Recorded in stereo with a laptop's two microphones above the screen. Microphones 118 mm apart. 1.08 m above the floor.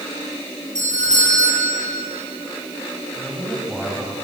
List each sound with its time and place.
0.8 s a doorbell: 80° right, 9.5 m
3.1 s a man speaking: 5° right (ahead or behind), 6 m